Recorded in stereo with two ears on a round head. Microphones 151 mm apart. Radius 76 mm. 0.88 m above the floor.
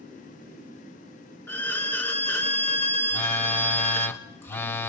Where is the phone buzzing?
10° left (ahead or behind), 0.8 m.